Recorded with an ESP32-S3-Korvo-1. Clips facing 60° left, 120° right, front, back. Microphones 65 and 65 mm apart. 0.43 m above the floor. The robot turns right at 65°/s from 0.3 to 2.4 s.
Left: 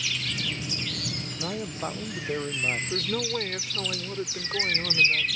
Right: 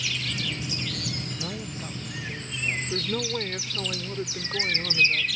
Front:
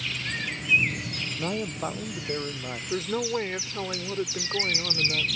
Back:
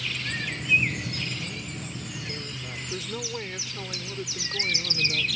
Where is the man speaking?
15° right; by 2.8 s 50° left.